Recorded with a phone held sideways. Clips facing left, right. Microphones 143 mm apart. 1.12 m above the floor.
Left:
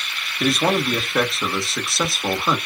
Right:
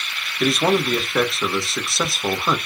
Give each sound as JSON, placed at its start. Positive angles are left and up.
{"t": 0.4, "sound": "a man speaking", "side_deg": 0, "distance_m": 1.2}